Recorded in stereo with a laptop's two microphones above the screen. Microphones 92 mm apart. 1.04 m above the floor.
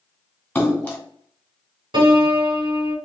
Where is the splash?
15° left (ahead or behind), 1.8 m.